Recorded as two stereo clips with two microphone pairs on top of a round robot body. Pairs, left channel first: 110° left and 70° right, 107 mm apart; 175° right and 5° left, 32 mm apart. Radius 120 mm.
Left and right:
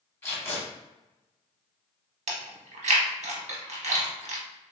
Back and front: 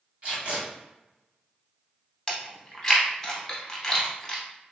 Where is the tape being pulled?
45° left, 1.7 m.